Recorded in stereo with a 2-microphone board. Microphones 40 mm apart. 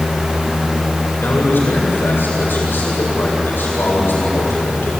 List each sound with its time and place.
1.2 s a man speaking: 65° left (ahead or behind), 7.5 m